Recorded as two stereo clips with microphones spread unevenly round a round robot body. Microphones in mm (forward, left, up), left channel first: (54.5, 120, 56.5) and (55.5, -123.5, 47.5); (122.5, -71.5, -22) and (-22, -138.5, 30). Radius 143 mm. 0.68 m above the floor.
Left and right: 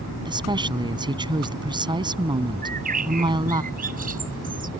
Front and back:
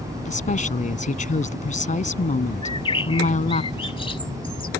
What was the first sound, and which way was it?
A woman speaking, 20° right.